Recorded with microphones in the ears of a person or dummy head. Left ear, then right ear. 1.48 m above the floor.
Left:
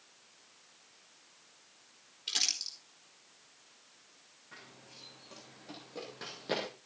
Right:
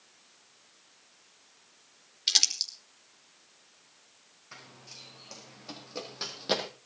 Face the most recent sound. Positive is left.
turn(degrees=-30)  # may be behind; listen again after turning